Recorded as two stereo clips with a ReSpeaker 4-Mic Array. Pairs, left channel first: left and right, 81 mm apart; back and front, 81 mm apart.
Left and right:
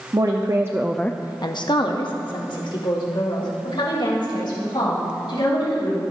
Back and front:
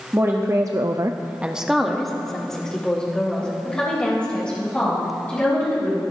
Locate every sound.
0.1 s a woman speaking: 55° right, 1.1 m; by 6.0 s 105° left, 5.5 m